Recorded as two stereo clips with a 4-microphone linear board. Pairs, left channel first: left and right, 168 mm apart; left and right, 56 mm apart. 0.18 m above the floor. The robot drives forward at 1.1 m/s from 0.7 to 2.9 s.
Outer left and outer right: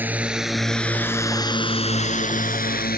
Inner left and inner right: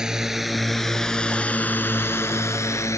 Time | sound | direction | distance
0.0 | a drone | 10° right (ahead or behind) | ?